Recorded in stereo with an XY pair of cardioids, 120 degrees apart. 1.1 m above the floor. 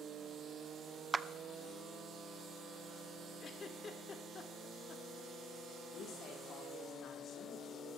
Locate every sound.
1.1 s a clap: 25° right, 0.5 m
3.4 s a giggle: 40° left, 1.7 m
5.9 s a woman speaking: 55° left, 3.5 m